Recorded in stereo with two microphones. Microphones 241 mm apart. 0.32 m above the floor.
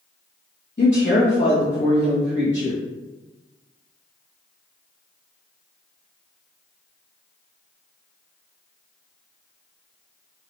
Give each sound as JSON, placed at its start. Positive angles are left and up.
{"t": 0.8, "sound": "a woman speaking", "side_deg": 50, "distance_m": 1.7}